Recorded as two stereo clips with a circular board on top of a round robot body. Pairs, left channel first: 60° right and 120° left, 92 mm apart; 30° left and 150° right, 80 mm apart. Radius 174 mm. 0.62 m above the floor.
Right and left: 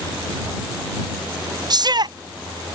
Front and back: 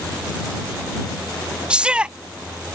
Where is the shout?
135° left.